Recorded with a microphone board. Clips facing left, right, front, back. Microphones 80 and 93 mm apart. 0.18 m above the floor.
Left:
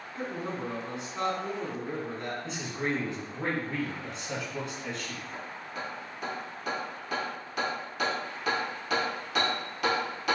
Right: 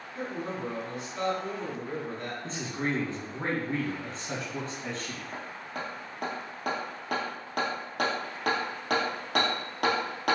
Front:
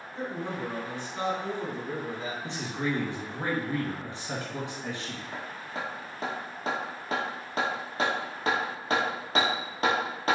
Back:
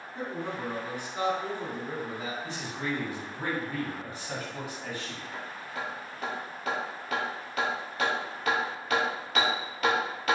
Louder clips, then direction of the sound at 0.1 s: Even, front 1 dB; 125° left.